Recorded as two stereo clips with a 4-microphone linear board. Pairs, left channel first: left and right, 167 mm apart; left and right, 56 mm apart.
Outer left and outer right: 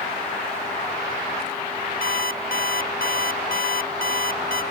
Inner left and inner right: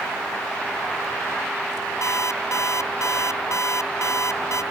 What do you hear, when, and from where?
2.0 s an alarm clock: 60° left (ahead or behind)